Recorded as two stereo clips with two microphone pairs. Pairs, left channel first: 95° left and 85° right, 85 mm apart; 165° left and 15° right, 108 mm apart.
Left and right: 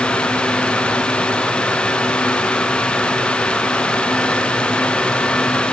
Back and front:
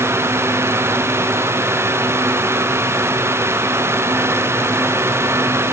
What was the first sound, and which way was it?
Only background noise.